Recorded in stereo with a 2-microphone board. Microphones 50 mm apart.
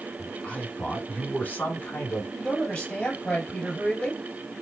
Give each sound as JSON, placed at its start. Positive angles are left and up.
{"t": 0.2, "sound": "a man speaking", "side_deg": 20, "distance_m": 1.7}
{"t": 2.3, "sound": "a man speaking", "side_deg": 25, "distance_m": 3.0}